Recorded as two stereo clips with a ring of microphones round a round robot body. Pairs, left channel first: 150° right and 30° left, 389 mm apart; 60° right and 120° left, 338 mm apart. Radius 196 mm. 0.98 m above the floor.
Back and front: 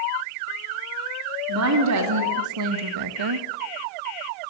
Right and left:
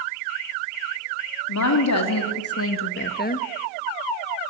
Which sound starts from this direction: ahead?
A woman speaking, at 1.5 s.